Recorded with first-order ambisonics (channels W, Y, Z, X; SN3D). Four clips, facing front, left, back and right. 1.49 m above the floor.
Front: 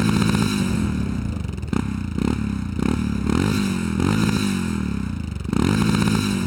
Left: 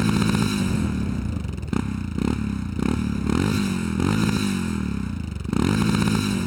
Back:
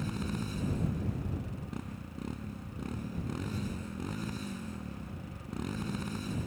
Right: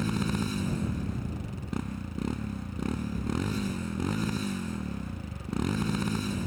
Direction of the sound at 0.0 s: 30° left.